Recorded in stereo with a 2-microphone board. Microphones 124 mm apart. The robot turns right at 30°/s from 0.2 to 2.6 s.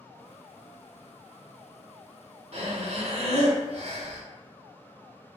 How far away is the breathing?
About 0.8 m.